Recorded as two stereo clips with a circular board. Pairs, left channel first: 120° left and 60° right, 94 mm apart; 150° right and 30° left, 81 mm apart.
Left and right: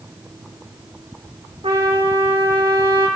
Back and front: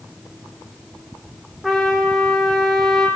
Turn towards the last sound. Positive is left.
turn(degrees=-60)